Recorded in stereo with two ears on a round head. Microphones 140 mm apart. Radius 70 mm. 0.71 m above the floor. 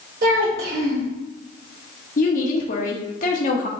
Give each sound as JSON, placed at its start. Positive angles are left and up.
{"t": 0.2, "sound": "a child speaking", "side_deg": -75, "distance_m": 2.0}
{"t": 2.2, "sound": "a woman speaking", "side_deg": 55, "distance_m": 1.2}